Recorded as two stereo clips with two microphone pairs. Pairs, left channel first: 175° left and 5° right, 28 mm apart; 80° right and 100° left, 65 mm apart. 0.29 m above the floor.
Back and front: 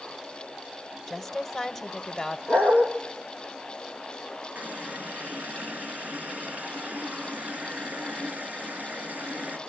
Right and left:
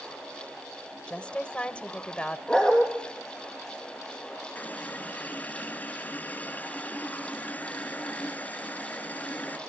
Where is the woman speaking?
115° right, 0.9 m.